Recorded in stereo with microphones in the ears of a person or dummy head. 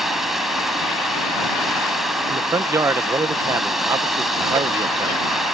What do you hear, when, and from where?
0.0 s running water: 5° right (ahead or behind)
2.3 s a man speaking: 15° right (ahead or behind)